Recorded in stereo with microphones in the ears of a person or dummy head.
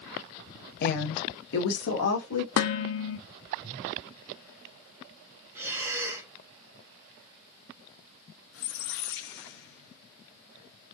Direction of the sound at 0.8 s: 55° left (ahead or behind).